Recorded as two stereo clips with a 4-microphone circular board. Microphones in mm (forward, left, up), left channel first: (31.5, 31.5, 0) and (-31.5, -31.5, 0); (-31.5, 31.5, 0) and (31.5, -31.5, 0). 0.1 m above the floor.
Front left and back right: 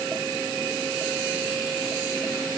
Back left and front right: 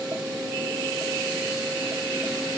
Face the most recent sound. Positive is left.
No sound to turn to.